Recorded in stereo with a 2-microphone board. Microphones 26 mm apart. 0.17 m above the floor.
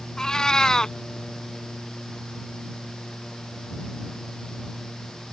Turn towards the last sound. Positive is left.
turn(degrees=25)  # may be behind; listen again after turning